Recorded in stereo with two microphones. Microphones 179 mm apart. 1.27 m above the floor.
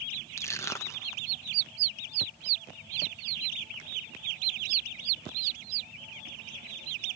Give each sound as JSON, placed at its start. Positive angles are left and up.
{"t": 0.4, "sound": "crushing", "side_deg": 15, "distance_m": 1.1}